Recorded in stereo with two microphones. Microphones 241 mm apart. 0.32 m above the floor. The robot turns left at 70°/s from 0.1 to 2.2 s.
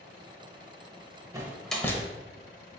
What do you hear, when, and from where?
1.3 s a door slam: 15° right (ahead or behind), 0.7 m; by 2.0 s 15° left (ahead or behind), 0.7 m